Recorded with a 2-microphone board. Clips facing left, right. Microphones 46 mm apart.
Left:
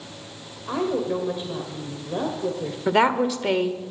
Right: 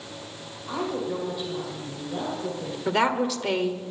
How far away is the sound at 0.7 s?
About 1.8 m.